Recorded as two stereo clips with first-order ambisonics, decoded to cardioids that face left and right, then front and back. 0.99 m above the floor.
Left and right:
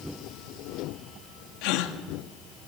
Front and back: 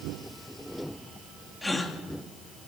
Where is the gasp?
85° left, 1.6 m.